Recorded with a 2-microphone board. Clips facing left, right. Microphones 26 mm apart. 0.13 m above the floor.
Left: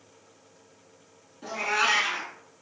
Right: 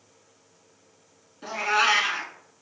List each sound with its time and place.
1.4 s a cat meowing: 25° right (ahead or behind), 0.5 m